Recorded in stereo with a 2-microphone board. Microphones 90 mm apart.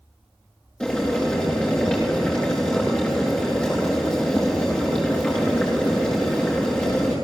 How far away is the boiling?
About 8 m.